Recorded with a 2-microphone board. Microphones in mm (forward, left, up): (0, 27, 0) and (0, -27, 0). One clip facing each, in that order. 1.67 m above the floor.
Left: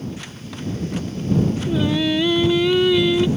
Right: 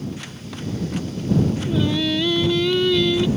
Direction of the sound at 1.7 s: 15° left (ahead or behind).